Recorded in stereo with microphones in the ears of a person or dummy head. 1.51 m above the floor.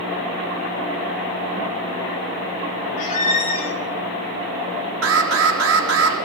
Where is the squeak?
40° left (ahead or behind), 3.5 m.